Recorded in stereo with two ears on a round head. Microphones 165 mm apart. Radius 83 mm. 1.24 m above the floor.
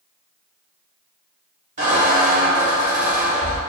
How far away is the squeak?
About 1.1 m.